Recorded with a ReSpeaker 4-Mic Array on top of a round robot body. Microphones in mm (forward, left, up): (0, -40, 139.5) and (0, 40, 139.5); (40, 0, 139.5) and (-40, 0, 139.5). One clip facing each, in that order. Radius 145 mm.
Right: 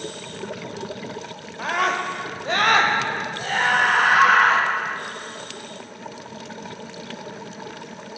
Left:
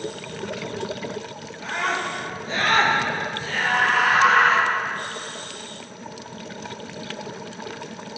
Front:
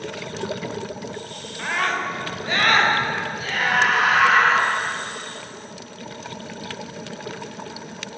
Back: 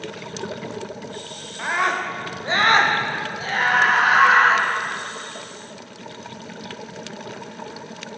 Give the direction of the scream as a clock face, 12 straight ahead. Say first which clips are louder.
Right 3 dB, back 2 dB; 4 o'clock.